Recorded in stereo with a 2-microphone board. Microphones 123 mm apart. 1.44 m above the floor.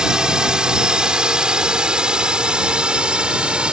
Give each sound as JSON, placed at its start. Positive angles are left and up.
{"t": 0.0, "sound": "a drone", "side_deg": -5}